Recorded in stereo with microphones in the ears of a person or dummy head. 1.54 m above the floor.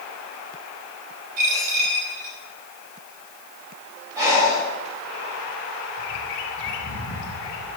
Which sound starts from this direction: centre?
Breathing, at 4.2 s.